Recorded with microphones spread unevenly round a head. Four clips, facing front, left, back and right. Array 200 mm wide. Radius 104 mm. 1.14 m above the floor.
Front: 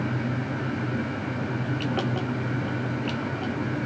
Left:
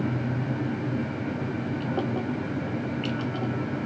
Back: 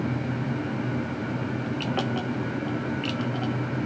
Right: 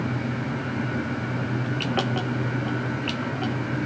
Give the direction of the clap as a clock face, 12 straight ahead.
I don't hear a clap.